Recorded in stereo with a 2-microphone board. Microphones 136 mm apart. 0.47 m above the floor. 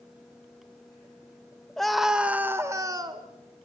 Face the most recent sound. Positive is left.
turn(degrees=-35)  # may be behind; listen again after turning